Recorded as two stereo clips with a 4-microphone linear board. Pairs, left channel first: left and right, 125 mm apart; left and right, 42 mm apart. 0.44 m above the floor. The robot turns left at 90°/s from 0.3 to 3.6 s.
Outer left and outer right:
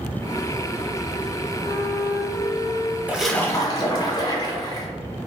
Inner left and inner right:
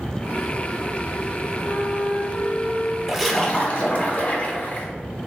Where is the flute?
15° left, 1.2 m; by 3.0 s 110° right, 1.2 m.